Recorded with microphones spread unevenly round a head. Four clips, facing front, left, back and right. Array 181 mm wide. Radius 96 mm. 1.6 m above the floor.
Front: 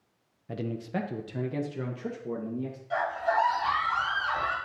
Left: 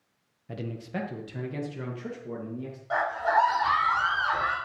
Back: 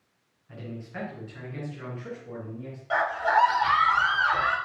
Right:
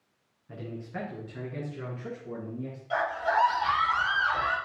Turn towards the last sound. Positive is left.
turn(degrees=145)